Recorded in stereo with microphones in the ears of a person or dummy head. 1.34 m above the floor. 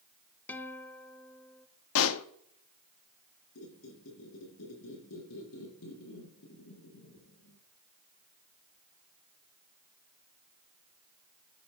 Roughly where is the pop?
Left.